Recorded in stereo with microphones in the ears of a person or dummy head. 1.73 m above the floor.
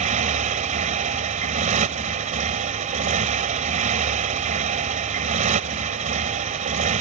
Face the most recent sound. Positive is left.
turn(degrees=-40)  # may be behind; listen again after turning